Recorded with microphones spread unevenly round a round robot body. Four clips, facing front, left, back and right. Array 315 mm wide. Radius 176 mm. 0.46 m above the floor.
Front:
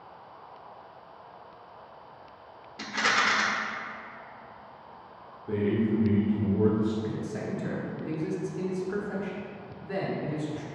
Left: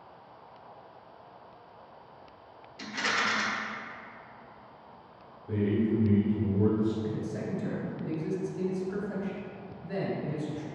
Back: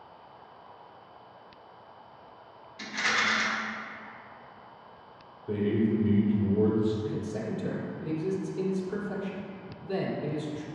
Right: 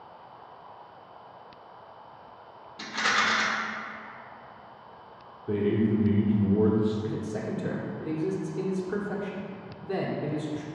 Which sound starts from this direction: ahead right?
A rattle, at 2.8 s.